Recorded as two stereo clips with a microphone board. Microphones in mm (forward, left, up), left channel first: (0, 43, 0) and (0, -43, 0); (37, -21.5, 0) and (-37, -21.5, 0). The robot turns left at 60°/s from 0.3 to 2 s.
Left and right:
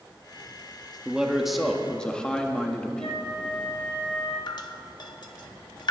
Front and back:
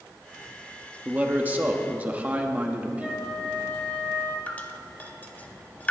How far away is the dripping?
About 0.9 m.